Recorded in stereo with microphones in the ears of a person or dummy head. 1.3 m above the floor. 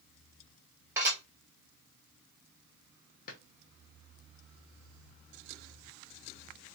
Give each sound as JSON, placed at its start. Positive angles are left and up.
{"t": 1.0, "sound": "dishes clattering", "side_deg": -20, "distance_m": 1.9}
{"t": 3.3, "sound": "a drawer", "side_deg": 50, "distance_m": 0.8}